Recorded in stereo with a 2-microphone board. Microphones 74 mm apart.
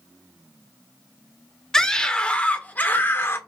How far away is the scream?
About 1.7 m.